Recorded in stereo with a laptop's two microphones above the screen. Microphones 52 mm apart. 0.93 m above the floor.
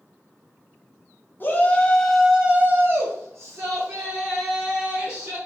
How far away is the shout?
About 0.9 m.